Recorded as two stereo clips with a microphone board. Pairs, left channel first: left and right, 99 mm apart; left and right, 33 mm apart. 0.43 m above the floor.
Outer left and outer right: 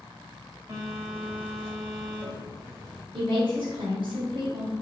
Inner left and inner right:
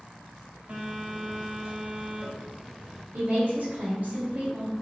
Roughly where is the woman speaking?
Right.